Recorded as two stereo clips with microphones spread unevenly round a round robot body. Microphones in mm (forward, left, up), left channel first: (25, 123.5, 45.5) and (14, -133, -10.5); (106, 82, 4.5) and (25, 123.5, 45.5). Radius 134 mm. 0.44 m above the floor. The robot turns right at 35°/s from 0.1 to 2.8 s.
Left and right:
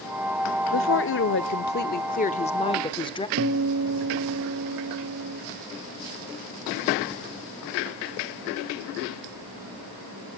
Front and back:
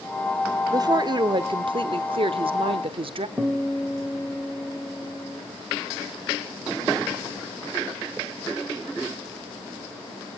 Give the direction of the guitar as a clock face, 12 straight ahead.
4 o'clock.